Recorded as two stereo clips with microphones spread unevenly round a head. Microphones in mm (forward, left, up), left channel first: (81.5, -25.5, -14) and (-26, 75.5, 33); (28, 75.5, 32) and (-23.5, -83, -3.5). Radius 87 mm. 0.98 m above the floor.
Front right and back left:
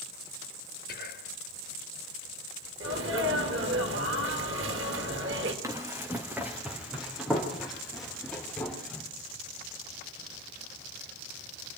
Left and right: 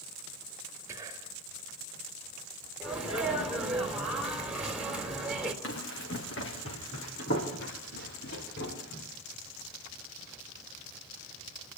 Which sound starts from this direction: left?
Running footsteps, at 5.6 s.